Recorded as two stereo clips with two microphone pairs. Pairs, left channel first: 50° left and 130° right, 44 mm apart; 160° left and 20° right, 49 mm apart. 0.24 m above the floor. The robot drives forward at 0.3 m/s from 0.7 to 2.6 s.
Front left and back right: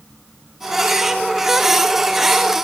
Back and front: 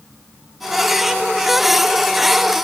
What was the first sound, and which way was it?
Only background noise.